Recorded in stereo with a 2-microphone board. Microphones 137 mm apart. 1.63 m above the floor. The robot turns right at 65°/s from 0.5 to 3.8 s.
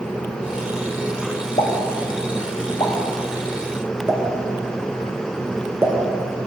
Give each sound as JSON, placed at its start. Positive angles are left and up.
{"t": 1.6, "sound": "a pop", "side_deg": 45, "distance_m": 1.2}